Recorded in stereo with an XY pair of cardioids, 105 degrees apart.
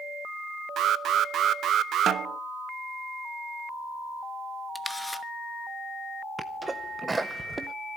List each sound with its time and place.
0.8 s an alarm: 70° right, 0.7 m
2.1 s a snare drum: 55° right, 1.0 m
4.8 s a camera shutter: 10° left, 1.0 m
6.4 s a sneeze: 20° right, 0.6 m